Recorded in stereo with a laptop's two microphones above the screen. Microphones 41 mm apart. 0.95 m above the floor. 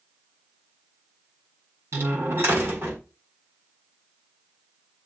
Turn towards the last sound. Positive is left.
turn(degrees=-85)